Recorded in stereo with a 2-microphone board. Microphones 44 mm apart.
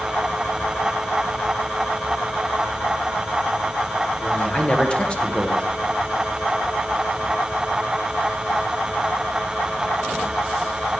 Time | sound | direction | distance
4.2 | a man speaking | 25° left (ahead or behind) | 1.6 m